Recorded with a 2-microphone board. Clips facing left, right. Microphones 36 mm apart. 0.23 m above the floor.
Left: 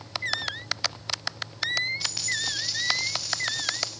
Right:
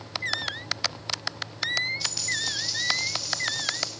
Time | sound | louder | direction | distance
2.0 | a dropped coin | even | 40° left (ahead or behind) | 3.5 m